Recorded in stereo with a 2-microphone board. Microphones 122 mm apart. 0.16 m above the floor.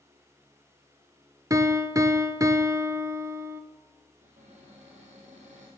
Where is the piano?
25° right (ahead or behind), 0.6 m.